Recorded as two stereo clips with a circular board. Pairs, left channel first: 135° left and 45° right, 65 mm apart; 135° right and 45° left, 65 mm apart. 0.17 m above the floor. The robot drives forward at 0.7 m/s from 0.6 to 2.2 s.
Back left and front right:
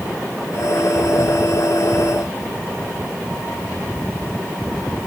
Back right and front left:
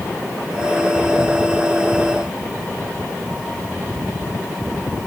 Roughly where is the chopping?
I don't hear chopping.